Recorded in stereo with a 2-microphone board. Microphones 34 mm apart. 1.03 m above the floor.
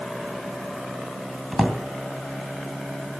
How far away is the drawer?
About 2.5 m.